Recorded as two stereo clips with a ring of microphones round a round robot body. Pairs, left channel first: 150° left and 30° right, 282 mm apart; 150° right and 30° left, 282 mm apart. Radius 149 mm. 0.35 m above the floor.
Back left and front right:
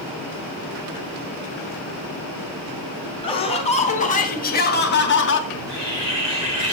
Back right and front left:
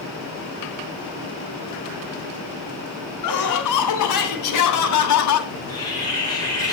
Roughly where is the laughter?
Behind right.